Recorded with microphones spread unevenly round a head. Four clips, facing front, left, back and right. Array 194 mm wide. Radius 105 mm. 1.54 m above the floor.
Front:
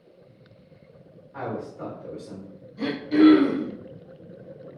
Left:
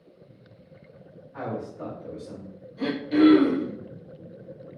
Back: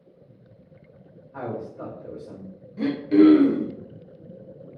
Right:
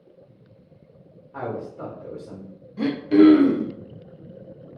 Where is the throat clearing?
105° right, 0.6 m.